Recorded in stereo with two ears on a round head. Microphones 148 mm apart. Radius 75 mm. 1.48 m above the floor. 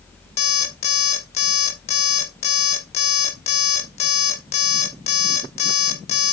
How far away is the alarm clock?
About 1.3 m.